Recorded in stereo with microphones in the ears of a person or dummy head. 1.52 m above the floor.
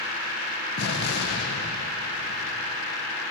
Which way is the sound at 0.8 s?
60° left (ahead or behind).